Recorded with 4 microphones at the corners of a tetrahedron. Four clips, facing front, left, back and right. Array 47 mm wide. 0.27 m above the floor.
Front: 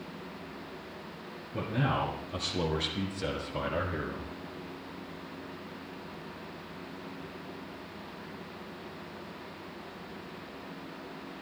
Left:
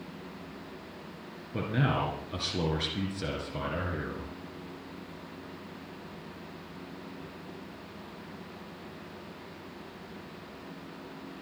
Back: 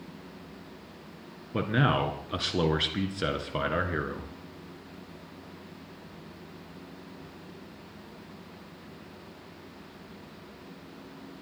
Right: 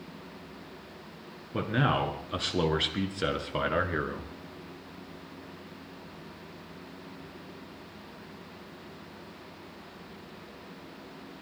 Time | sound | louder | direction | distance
1.5 | a man speaking | right 2 dB, back 5 dB | 155° right | 3 m